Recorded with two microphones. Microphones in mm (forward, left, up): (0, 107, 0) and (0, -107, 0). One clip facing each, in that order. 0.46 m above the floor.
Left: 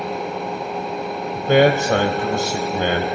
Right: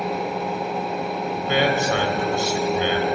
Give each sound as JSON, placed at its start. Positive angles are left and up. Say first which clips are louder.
{"t": 1.4, "sound": "a man speaking", "louder": "left 8 dB", "side_deg": 50, "distance_m": 2.0}